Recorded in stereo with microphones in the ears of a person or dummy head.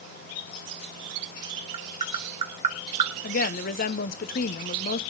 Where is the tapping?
35° right (ahead or behind), 1.8 m.